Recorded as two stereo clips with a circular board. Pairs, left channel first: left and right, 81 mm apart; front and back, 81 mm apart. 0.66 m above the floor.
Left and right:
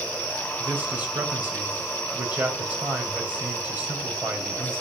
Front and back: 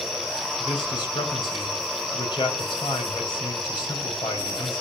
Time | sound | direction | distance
0.6 | a man speaking | 20° right | 3.5 m